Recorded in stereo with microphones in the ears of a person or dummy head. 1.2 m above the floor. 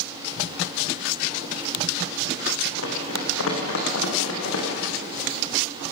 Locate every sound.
2.8 s running footsteps: 75° left (ahead or behind), 6 m; by 4.7 s 80° left, 7.5 m